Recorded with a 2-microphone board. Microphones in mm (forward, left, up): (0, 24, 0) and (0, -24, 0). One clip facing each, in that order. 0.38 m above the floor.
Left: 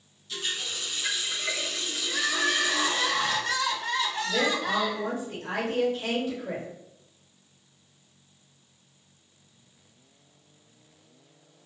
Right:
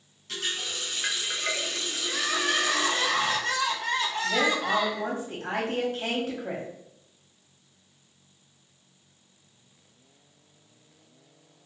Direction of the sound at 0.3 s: 65° right (ahead or behind).